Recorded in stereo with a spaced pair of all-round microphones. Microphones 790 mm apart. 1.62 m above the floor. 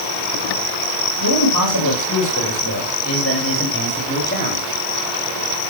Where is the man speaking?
30° left (ahead or behind), 8.5 m; by 4.6 s 10° left (ahead or behind), 10 m.